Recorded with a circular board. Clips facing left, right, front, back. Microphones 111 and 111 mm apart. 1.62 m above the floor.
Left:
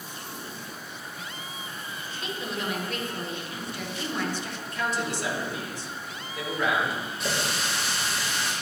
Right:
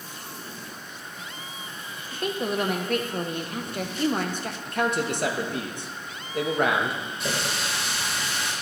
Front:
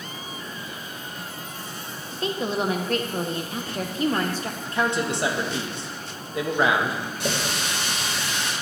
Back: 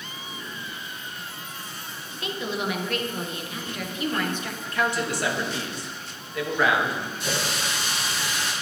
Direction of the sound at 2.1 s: 55° right.